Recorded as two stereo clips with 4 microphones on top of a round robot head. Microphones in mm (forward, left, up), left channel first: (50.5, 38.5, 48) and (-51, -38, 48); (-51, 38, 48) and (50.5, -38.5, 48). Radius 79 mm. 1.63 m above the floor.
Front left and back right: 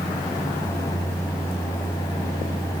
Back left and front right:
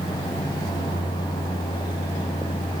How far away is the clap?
No clap in this recording.